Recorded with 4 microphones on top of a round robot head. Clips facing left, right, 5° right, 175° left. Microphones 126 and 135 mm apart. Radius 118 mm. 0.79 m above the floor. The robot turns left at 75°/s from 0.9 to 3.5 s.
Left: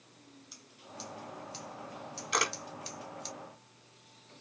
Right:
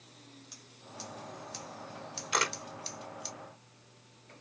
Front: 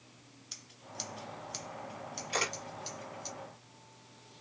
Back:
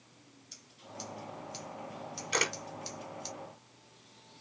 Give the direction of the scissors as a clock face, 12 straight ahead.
12 o'clock.